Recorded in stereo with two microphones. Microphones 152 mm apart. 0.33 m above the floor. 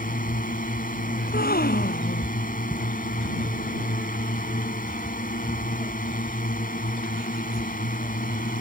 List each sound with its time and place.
0.0 s a drone: 60° left (ahead or behind)
1.2 s a gasp: 70° left (ahead or behind)